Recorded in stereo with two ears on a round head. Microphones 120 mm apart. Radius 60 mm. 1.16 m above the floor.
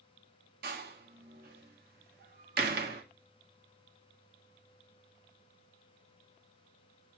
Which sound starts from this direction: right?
A door slam, at 0.6 s.